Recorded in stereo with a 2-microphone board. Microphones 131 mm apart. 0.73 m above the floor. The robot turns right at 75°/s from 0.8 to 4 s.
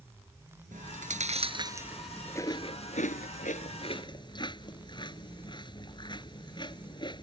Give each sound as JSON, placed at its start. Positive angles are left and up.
{"t": 0.7, "sound": "chewing", "side_deg": -85}